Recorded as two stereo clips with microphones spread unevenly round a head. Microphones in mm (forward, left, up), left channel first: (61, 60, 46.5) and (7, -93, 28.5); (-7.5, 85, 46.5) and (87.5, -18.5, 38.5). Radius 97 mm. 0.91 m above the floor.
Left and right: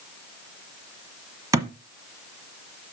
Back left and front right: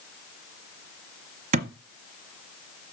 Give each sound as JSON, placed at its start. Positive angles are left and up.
{"t": 1.5, "sound": "a thud", "azimuth_deg": -40, "distance_m": 1.0}